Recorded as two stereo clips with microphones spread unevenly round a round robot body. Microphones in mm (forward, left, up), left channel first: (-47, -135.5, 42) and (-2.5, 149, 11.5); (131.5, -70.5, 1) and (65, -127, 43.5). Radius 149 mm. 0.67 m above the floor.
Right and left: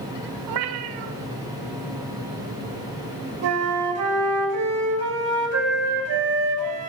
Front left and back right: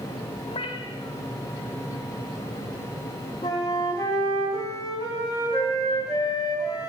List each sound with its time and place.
0.5 s a cat meowing: 80° left, 1.0 m
3.4 s a flute: 115° left, 3 m